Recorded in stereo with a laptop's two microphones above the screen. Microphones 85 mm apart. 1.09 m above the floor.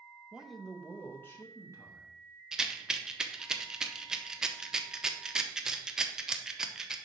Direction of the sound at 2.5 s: 10° right (ahead or behind).